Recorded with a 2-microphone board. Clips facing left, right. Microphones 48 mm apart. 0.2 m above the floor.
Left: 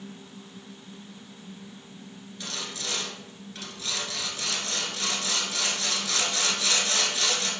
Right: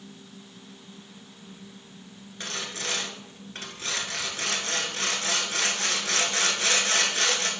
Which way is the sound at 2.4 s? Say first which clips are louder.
Right 3 dB; 40° right (ahead or behind).